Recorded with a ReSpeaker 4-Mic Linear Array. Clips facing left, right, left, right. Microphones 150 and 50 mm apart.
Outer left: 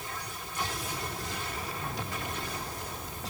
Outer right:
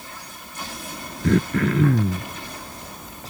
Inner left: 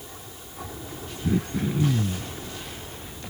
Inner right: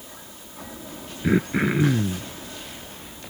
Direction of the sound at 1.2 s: 65° right (ahead or behind).